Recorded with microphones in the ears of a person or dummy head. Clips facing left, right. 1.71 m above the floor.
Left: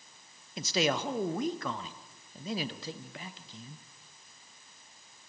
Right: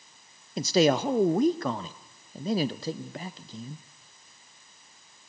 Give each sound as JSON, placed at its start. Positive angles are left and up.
{"t": 0.6, "sound": "a man speaking", "side_deg": -30, "distance_m": 0.7}